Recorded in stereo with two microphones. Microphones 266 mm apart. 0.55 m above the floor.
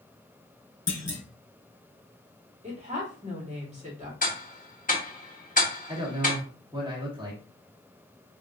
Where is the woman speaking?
25° right (ahead or behind), 1.4 m.